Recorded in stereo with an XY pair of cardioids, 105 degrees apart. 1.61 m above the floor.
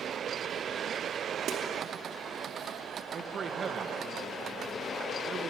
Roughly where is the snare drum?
Right.